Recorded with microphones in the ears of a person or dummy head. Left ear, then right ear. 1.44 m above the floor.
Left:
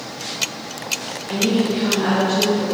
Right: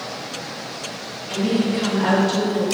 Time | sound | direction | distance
1.3 | a woman speaking | 20° left (ahead or behind) | 0.8 m